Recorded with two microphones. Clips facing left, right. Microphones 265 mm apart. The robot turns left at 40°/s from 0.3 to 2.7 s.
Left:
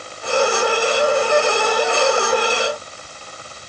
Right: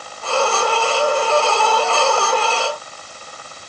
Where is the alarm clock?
No alarm clock in this recording.